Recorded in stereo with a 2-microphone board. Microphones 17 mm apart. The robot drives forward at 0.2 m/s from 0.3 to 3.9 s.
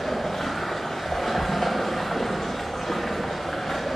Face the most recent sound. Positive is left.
turn(degrees=70)  # may be behind; listen again after turning